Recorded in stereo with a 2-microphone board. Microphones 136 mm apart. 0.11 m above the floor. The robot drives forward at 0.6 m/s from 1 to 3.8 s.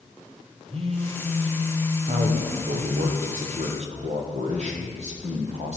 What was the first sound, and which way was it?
A phone buzzing, 45° right (ahead or behind).